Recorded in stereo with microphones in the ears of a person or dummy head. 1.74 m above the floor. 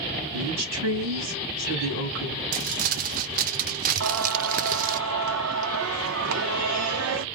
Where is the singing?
70° right (ahead or behind), 1.0 m.